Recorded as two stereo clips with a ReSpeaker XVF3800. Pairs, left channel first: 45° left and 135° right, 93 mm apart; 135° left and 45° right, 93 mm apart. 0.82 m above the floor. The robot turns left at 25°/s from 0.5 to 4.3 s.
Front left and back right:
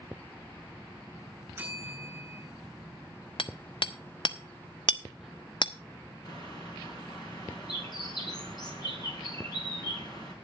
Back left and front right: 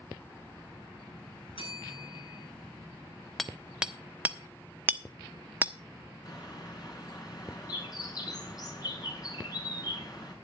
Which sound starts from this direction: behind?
A bell, at 1.6 s.